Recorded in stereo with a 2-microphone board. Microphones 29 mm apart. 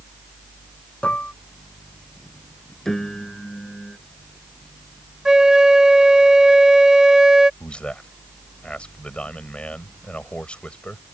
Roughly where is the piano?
Centre.